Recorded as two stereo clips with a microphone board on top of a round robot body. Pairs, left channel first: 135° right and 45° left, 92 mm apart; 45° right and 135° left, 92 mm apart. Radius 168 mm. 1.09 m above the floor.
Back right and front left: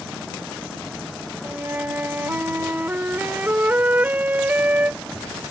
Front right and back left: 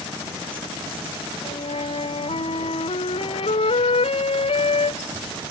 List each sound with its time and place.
1.4 s a flute: 30° right